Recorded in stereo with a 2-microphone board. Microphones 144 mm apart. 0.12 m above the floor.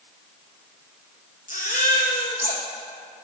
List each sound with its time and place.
1.5 s a baby crying: 70° left (ahead or behind), 4.5 m